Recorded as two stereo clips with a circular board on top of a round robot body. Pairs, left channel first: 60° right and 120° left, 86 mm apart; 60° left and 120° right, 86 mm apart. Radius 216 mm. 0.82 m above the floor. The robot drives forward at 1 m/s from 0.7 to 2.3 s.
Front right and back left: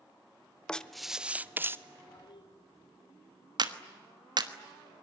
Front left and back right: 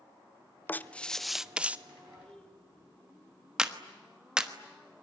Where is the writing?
10° left, 1.0 m; by 1.8 s 170° left, 1.1 m.